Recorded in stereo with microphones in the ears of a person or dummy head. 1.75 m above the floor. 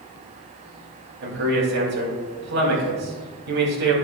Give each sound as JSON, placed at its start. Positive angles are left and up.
{"t": 1.2, "sound": "a man speaking", "side_deg": -60, "distance_m": 4.0}